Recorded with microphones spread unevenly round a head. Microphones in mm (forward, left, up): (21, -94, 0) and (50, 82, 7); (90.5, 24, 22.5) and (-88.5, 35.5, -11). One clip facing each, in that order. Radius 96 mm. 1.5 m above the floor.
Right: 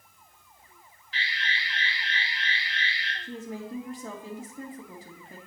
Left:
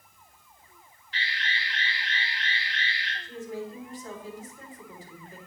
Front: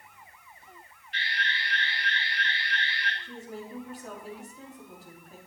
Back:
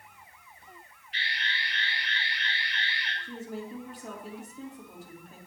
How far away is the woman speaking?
About 3 m.